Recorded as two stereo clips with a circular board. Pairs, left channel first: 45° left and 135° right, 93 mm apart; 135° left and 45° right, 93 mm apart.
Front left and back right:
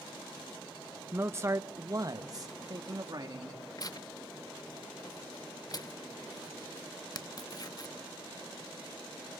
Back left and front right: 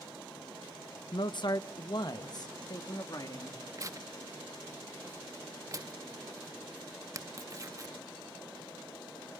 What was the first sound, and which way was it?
A man speaking, 160° left.